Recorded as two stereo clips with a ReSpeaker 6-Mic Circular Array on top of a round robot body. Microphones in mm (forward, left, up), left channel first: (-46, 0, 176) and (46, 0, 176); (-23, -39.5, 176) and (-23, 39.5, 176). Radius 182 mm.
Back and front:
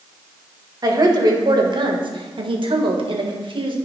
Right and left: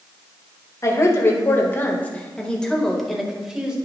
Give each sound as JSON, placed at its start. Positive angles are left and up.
{"t": 0.8, "sound": "a woman speaking", "azimuth_deg": -45, "distance_m": 1.9}